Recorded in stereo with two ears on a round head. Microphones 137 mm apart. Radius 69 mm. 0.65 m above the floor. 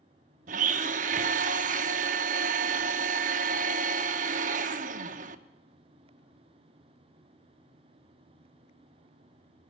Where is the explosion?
I don't hear an explosion.